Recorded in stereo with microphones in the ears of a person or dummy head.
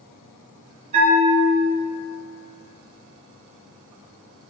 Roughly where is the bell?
Right.